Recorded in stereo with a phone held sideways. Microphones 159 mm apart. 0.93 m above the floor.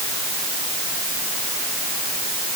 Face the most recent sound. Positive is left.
No sound to turn to.